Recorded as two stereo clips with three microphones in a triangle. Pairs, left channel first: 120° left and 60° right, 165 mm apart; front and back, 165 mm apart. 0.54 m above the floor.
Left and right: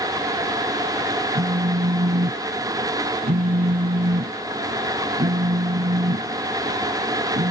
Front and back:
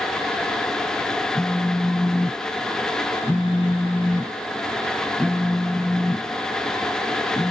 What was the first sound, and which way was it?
A phone buzzing, 85° right.